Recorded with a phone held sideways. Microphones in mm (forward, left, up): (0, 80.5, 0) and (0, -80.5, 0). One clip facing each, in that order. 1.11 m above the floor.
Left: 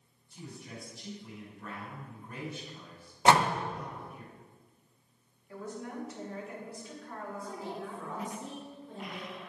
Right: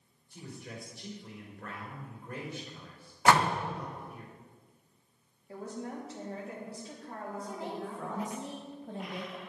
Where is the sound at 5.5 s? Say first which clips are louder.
Right 1 dB; 30° right (ahead or behind), 2.5 m.